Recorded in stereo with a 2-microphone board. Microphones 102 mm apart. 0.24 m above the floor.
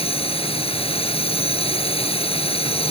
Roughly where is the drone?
Left.